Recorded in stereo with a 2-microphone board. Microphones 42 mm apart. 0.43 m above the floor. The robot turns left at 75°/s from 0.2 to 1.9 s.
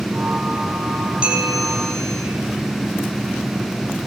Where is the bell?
155° right, 5.5 m; by 2.2 s 155° left, 5.5 m.